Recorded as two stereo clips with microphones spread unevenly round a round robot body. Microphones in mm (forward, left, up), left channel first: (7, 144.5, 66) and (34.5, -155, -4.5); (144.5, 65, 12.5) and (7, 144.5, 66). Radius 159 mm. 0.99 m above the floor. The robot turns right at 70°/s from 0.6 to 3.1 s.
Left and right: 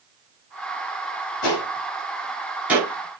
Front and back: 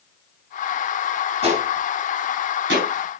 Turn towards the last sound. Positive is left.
turn(degrees=-145)